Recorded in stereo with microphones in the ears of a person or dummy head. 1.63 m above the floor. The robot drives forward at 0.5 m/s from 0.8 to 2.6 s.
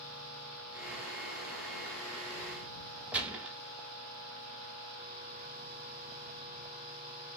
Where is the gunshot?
5° right (ahead or behind), 0.5 m.